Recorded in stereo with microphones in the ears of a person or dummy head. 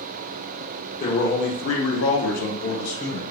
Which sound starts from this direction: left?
A man speaking, at 1.0 s.